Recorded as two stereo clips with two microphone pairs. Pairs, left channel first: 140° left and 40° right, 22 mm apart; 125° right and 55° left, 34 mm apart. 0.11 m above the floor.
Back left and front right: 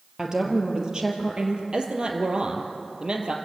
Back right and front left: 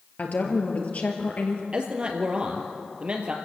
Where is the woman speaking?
100° right, 3 m; by 1.6 s 85° right, 3.5 m.